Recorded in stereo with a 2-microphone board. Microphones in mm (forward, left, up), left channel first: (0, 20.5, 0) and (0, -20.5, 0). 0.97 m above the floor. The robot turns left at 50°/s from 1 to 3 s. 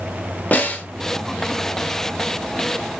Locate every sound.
0.5 s a snare drum: 35° left (ahead or behind), 0.8 m